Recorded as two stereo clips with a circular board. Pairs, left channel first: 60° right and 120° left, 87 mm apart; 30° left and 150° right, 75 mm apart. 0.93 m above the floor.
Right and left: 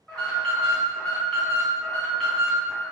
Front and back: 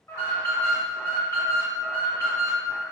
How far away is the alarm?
About 1.5 m.